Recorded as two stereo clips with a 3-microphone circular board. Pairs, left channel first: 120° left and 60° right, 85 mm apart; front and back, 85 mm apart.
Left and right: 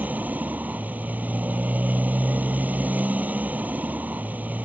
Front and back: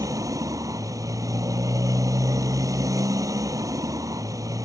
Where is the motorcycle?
130° right.